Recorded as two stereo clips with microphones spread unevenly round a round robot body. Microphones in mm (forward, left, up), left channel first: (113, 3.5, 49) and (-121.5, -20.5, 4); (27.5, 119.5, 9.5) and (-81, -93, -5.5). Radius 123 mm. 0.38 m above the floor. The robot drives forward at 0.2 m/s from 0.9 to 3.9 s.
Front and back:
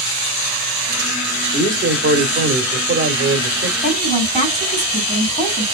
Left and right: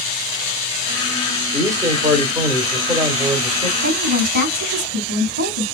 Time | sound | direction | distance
1.5 | a man speaking | 170° left | 1.3 m
3.8 | a woman speaking | 60° right | 3 m